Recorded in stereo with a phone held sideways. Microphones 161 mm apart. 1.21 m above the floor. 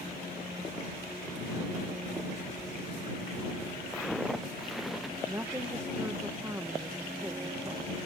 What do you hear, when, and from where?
3.9 s footsteps: centre (ahead or behind)
5.3 s a woman speaking: 15° right (ahead or behind)